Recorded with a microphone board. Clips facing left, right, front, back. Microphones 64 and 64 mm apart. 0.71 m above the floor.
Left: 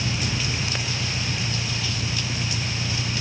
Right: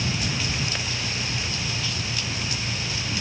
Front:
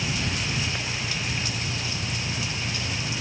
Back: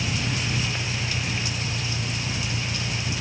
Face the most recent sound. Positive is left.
turn(degrees=110)